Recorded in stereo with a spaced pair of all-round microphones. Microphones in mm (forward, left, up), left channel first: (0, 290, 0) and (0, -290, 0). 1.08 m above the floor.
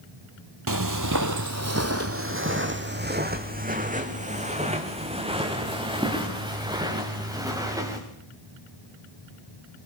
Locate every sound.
0.7 s footsteps: 35° right (ahead or behind), 1.3 m; by 8.0 s 5° right (ahead or behind), 5.5 m